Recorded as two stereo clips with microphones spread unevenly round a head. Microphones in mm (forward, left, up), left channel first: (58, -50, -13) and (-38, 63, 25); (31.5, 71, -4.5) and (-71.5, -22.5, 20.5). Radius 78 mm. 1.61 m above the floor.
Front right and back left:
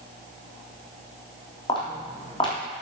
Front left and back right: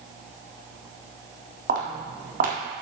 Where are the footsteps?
115° right, 4 m.